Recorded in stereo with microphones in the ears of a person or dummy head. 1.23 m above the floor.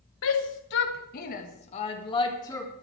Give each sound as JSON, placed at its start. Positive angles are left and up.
{"t": 0.2, "sound": "a shout", "side_deg": 70, "distance_m": 1.6}